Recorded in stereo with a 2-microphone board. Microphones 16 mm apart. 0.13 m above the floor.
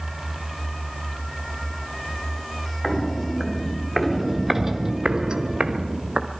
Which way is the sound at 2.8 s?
15° left (ahead or behind).